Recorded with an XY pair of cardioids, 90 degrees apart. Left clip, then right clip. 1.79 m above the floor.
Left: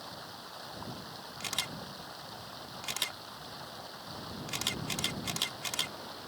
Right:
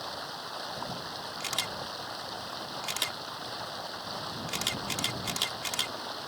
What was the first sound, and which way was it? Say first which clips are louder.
Running water: right 7 dB; 50° right.